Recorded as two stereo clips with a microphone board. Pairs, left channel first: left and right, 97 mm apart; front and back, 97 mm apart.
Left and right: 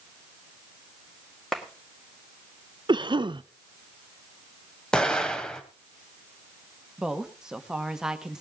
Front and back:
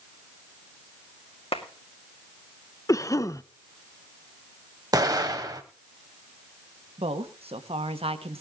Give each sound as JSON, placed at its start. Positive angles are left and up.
{"t": 1.5, "sound": "a clap", "azimuth_deg": 5, "distance_m": 2.0}
{"t": 2.9, "sound": "a cough", "azimuth_deg": -55, "distance_m": 0.7}
{"t": 4.9, "sound": "an explosion", "azimuth_deg": 165, "distance_m": 1.4}
{"t": 7.0, "sound": "a woman speaking", "azimuth_deg": -175, "distance_m": 1.5}